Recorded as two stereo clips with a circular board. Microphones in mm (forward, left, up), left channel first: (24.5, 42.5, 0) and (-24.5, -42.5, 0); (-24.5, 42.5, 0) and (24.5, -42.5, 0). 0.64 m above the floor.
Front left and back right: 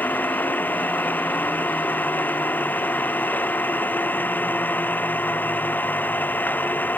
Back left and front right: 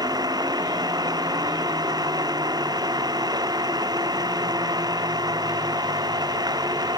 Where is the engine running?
10° right.